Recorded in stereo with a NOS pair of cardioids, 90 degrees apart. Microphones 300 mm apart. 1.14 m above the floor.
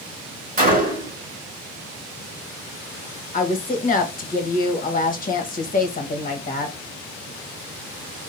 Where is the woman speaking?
30° left, 1.1 m.